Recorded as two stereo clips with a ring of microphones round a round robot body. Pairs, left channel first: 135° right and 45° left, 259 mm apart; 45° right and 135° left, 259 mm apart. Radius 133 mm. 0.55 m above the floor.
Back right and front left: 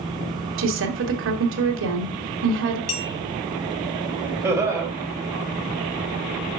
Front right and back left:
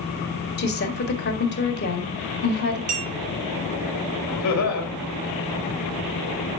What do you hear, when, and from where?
0.6 s a woman speaking: 5° left, 1.8 m
2.9 s a clink: 165° right, 2.5 m
4.4 s laughter: 35° right, 3 m